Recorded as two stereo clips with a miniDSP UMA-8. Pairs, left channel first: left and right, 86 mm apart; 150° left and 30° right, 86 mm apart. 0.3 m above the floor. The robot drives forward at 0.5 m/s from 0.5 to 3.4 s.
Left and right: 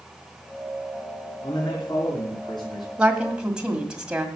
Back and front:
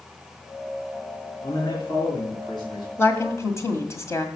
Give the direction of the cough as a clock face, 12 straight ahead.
I don't hear a cough.